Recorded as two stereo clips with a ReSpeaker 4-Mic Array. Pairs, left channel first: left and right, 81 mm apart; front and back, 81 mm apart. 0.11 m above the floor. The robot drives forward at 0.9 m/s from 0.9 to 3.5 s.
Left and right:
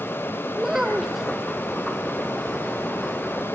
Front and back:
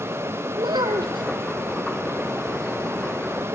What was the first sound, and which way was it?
A child speaking, 175° right.